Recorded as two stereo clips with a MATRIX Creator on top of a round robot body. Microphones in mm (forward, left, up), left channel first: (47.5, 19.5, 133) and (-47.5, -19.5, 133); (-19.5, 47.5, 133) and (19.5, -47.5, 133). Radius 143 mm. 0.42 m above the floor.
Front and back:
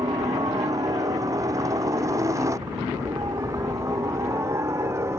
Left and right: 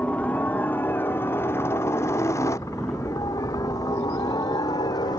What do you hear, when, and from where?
0.0 s a helicopter: straight behind; by 5.2 s 145° left